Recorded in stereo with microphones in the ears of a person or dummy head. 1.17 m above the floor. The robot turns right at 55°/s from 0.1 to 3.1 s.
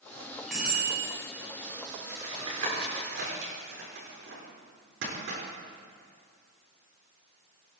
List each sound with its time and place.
0.5 s a bicycle bell: straight behind, 6.5 m; by 1.1 s 150° right, 6.5 m
2.1 s tapping: 15° right (ahead or behind), 7 m; by 5.4 s 70° right (ahead or behind), 7 m